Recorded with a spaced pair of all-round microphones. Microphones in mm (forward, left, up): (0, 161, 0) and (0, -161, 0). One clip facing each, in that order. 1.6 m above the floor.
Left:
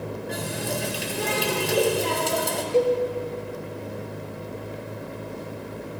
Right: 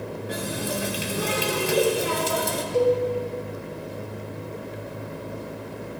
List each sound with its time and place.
0.3 s a running tap: 5° right (ahead or behind), 1.7 m
2.7 s a cowbell: 60° left (ahead or behind), 1.3 m